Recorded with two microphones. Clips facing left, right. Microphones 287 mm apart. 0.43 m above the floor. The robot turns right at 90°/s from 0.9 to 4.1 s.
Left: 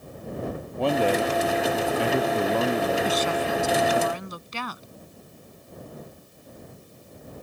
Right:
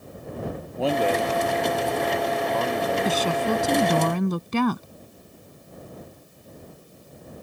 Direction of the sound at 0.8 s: Centre (ahead or behind).